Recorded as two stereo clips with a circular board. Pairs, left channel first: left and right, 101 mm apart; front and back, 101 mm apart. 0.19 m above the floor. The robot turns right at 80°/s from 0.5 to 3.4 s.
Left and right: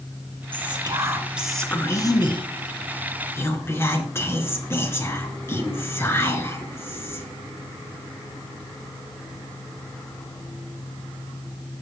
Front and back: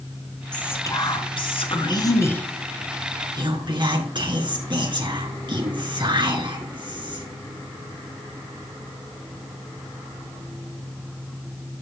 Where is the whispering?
80° right, 3 m; by 7.3 s 150° left, 3 m.